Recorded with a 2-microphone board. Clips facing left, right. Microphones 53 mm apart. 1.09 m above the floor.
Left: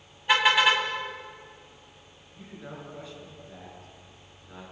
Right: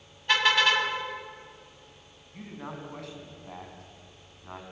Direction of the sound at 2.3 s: 70° right (ahead or behind).